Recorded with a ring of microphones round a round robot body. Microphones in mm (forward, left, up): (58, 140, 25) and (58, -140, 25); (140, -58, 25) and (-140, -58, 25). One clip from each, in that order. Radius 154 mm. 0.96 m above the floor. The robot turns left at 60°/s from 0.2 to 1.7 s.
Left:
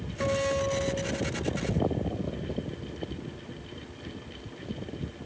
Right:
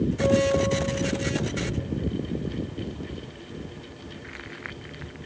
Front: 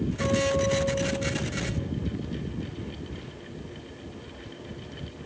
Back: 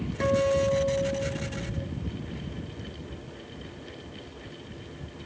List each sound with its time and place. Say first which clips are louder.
0.2 s a guitar: right 5 dB, back 2 dB; 125° right, 3.5 m; by 1.9 s 145° left, 3.5 m